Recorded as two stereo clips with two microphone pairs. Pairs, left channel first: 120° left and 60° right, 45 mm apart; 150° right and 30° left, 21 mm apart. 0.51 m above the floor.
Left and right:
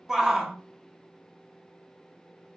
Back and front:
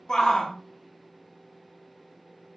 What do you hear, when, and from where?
0.1 s a shout: 130° right, 0.8 m